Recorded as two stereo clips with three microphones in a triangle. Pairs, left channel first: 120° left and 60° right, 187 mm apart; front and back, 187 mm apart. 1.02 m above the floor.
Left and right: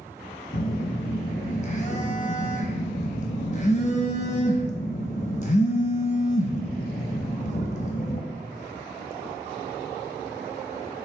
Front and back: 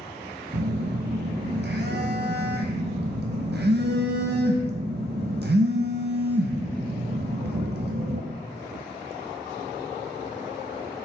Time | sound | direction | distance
0.5 | a phone buzzing | 165° left | 0.6 m